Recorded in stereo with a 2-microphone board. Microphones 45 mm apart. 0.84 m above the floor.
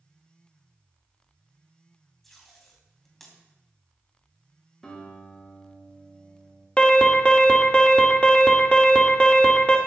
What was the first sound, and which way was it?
Tape being pulled, 5° left (ahead or behind).